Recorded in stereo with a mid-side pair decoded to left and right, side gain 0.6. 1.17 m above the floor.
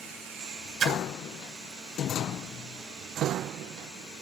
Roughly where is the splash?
Ahead right.